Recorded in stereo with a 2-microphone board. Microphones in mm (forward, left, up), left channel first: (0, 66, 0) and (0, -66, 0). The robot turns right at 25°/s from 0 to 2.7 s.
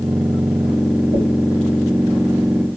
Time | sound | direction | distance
1.1 | a dropped coin | 60° right (ahead or behind) | 2.5 m